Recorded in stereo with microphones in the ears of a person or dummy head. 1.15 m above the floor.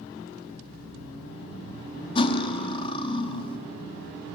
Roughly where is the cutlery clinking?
Left.